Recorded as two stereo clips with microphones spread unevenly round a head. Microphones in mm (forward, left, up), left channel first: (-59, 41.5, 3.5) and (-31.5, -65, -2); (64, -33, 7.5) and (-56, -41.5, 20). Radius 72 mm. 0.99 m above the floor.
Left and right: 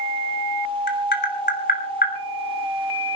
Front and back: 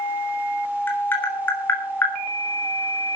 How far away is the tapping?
About 2.5 m.